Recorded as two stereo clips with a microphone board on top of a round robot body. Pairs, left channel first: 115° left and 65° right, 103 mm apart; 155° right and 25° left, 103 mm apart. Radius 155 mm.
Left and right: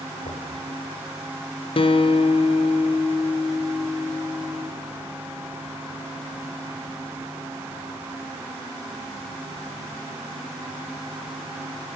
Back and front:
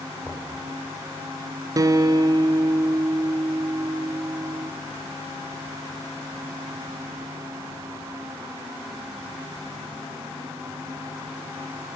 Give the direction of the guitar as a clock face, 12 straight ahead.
9 o'clock.